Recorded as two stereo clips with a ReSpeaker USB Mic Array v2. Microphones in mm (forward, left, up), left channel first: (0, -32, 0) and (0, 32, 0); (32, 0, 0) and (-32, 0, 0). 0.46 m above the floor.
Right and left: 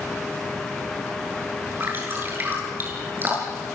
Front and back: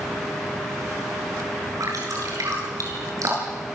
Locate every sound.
1.8 s dripping: 145° left, 8.5 m